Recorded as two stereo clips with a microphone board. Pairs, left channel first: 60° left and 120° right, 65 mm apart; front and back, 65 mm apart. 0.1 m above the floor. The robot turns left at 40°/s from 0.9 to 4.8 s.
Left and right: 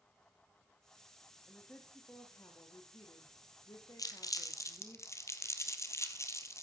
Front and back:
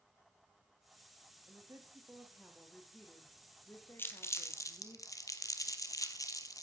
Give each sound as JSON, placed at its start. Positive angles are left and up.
{"t": 1.5, "sound": "a woman speaking", "azimuth_deg": 145, "distance_m": 4.0}
{"t": 4.0, "sound": "crumpling", "azimuth_deg": 55, "distance_m": 1.7}